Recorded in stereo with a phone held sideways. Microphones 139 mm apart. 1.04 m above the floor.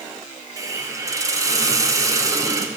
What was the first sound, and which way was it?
A hiss, 20° right (ahead or behind).